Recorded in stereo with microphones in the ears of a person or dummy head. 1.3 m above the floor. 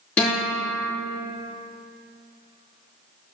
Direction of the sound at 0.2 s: 10° left (ahead or behind).